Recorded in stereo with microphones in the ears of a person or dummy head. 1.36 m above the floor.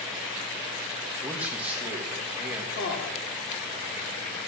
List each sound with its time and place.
1.2 s a man speaking: 5° right (ahead or behind), 2 m
2.8 s a man speaking: 75° left (ahead or behind), 4 m